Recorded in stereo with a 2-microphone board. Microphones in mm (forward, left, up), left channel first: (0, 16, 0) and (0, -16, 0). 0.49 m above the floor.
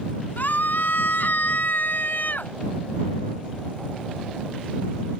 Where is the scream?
65° left (ahead or behind); by 2.5 s 70° left (ahead or behind).